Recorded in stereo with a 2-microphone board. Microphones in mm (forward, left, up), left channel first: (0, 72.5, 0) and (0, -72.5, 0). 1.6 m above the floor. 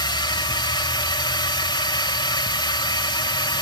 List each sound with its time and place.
0.0 s a drone: 30° left (ahead or behind)